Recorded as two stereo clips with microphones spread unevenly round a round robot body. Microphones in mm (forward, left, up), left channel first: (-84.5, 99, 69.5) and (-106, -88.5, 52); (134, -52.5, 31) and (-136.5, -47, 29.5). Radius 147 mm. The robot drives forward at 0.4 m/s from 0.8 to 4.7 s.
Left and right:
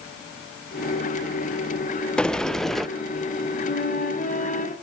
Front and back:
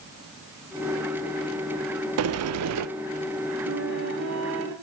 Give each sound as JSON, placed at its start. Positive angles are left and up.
{"t": 2.2, "sound": "a sliding door", "azimuth_deg": 170, "distance_m": 0.7}
{"t": 3.7, "sound": "a flute", "azimuth_deg": 125, "distance_m": 2.5}